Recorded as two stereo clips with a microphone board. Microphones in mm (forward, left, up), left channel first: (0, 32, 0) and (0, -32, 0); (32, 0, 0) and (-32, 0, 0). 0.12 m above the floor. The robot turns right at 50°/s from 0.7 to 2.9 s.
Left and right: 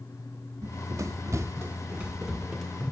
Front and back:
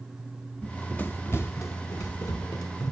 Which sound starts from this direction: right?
Running footsteps, at 0.6 s.